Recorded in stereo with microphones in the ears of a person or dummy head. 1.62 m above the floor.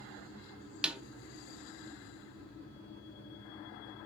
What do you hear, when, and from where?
0.8 s a snare drum: 10° right (ahead or behind), 0.6 m